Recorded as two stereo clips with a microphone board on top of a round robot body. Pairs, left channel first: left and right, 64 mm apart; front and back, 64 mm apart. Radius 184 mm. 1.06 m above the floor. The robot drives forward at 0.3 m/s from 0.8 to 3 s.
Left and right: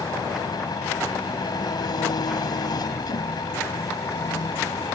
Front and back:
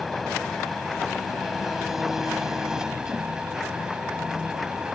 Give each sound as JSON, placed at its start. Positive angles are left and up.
{"t": 0.0, "sound": "an engine running", "azimuth_deg": 90}